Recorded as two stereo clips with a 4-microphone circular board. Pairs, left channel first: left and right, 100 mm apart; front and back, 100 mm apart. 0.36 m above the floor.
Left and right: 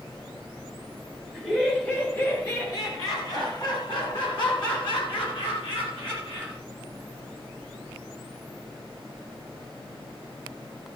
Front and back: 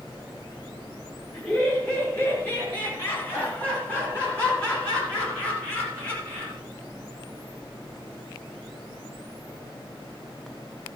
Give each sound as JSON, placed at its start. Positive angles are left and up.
{"t": 1.3, "sound": "laughter", "azimuth_deg": -5, "distance_m": 1.3}